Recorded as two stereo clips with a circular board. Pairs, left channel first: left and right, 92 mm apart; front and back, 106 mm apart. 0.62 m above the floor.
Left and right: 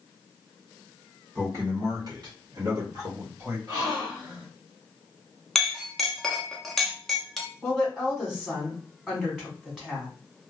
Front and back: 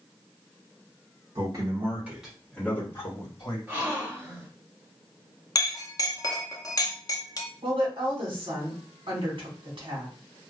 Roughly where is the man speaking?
Behind right.